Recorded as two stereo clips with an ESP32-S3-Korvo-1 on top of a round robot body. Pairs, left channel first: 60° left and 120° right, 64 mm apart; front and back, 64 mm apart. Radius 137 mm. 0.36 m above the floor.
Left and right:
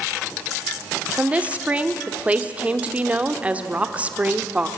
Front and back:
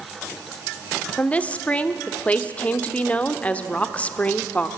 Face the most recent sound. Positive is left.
turn(degrees=-60)